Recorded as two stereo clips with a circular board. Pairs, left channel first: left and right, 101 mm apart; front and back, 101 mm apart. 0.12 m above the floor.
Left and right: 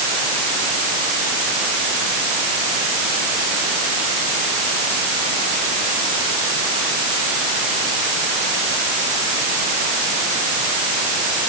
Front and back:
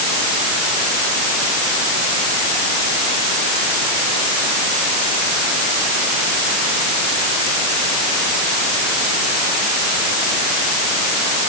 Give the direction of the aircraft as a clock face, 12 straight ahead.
I don't hear an aircraft.